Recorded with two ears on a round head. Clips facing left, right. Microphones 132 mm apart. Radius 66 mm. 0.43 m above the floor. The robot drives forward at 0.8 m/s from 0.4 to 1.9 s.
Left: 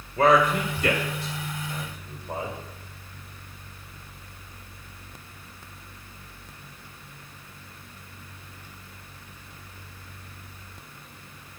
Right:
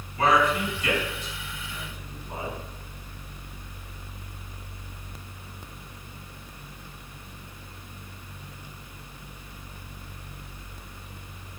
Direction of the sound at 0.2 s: 45° left (ahead or behind).